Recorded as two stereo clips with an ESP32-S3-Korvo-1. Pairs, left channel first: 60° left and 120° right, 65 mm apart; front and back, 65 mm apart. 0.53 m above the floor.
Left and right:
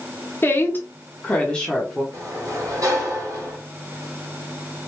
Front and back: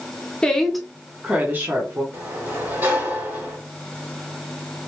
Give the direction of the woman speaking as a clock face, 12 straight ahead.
10 o'clock.